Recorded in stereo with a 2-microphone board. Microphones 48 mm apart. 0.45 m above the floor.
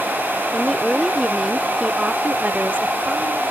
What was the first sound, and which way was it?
A woman speaking, 20° left (ahead or behind).